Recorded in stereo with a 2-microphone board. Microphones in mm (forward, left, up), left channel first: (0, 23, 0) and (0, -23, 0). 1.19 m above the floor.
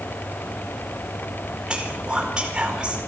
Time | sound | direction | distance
1.7 | whispering | 20° right (ahead or behind) | 4.5 m